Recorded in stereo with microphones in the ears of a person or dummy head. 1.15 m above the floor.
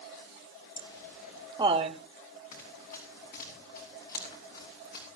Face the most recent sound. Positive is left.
turn(degrees=55)  # may be behind; listen again after turning